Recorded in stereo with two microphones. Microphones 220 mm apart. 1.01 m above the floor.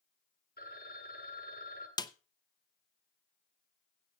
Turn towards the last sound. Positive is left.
turn(degrees=20)  # may be behind; listen again after turning